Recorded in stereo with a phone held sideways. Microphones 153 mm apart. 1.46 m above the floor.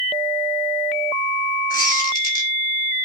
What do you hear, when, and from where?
1.7 s a squeak: 65° left (ahead or behind), 3 m